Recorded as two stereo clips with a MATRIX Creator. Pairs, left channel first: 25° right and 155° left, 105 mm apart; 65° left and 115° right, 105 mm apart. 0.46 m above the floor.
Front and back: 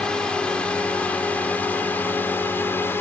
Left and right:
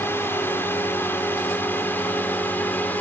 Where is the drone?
45° left; by 3.0 s 15° left.